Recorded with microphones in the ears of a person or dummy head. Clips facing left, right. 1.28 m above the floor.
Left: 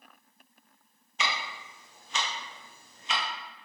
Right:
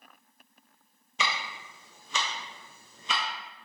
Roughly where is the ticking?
Right.